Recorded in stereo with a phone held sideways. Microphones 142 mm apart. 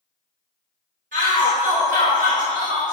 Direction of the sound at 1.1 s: 70° right (ahead or behind).